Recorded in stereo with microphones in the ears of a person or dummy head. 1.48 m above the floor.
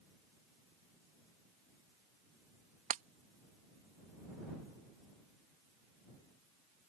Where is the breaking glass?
45° right (ahead or behind).